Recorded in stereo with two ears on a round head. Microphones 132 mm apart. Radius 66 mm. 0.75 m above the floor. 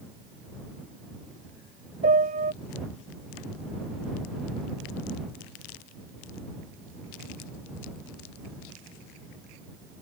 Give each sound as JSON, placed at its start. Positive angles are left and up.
{"t": 2.0, "sound": "a piano", "side_deg": -60}